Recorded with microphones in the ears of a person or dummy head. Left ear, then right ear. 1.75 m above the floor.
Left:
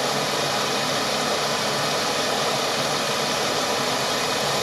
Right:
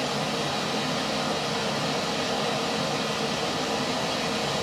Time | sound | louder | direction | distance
0.0 | running water | left 5 dB | 70° left (ahead or behind) | 1.3 m